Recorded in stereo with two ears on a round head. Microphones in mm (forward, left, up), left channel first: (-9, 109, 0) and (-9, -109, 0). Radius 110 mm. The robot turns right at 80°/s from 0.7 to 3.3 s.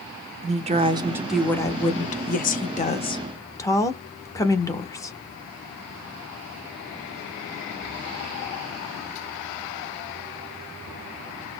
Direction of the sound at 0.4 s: 50° right.